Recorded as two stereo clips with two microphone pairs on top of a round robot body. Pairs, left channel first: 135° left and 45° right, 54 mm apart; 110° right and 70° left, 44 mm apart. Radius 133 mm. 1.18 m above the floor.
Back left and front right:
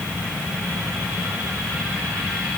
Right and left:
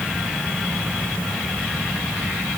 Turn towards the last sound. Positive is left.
No sound to turn to.